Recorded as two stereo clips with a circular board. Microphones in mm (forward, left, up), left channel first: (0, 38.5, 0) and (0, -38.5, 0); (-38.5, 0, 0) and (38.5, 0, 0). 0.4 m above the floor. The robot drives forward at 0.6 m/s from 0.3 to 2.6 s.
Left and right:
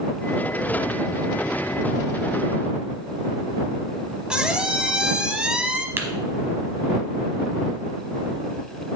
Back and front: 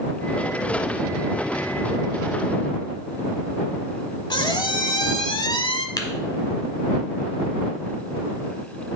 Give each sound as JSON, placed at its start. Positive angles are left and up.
{"t": 4.3, "sound": "a squeak", "azimuth_deg": -170, "distance_m": 0.6}
{"t": 6.0, "sound": "tapping", "azimuth_deg": -150, "distance_m": 1.0}